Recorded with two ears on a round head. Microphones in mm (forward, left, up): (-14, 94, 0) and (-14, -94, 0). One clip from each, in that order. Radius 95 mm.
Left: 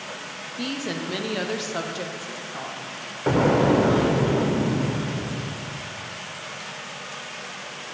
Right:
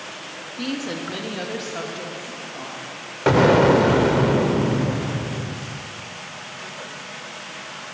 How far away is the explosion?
About 0.6 m.